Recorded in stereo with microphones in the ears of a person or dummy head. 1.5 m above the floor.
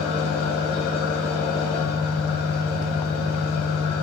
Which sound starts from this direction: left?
An engine running, at 0.0 s.